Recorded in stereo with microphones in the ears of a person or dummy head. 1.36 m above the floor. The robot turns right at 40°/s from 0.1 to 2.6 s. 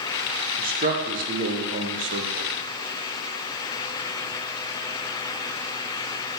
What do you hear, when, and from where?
0.6 s a man speaking: 40° right (ahead or behind), 0.8 m; by 2.5 s 50° right (ahead or behind), 0.8 m